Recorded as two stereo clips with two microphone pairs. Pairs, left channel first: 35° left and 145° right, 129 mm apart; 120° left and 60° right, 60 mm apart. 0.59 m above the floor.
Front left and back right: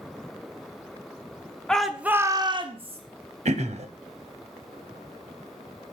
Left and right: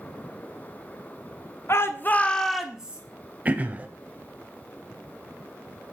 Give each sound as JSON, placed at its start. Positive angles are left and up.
{"t": 1.7, "sound": "a shout", "azimuth_deg": 120, "distance_m": 0.8}
{"t": 3.5, "sound": "throat clearing", "azimuth_deg": -120, "distance_m": 0.6}